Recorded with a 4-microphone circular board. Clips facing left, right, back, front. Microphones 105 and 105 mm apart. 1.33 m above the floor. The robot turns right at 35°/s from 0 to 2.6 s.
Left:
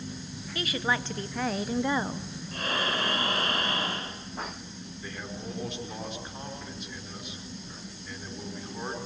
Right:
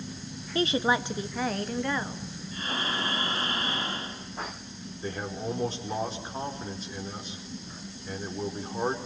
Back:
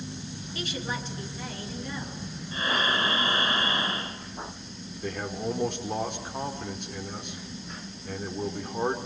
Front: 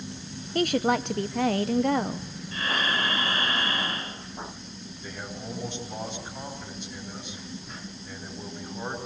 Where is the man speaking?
150° right, 4 m.